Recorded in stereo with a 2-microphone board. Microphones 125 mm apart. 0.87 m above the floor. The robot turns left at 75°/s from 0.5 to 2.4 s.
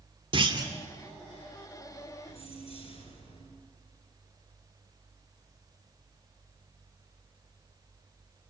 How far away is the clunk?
About 2.5 m.